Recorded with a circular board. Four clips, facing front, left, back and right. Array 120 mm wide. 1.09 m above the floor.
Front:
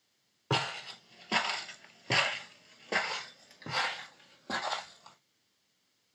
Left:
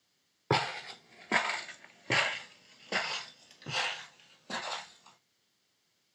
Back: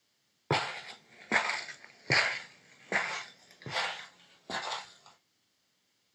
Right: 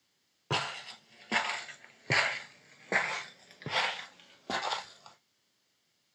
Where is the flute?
No flute in this recording.